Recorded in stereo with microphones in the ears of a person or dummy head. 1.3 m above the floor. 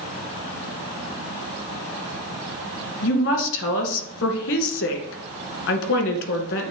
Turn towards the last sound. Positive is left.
turn(degrees=65)  # may be behind; listen again after turning